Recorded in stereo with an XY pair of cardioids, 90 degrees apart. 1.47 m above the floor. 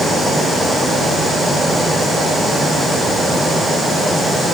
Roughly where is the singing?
I don't hear singing.